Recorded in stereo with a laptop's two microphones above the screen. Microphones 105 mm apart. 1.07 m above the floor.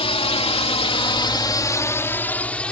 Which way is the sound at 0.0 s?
65° left (ahead or behind).